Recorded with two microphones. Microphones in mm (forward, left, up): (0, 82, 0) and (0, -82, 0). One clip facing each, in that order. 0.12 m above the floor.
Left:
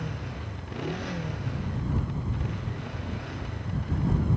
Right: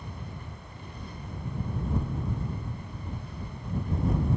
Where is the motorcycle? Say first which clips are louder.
Left 6 dB; 80° left; by 4.4 s 75° left (ahead or behind).